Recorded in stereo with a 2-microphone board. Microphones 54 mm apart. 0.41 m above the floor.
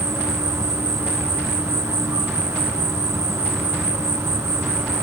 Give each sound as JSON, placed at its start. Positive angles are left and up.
{"t": 0.0, "sound": "an insect", "side_deg": -75, "distance_m": 0.8}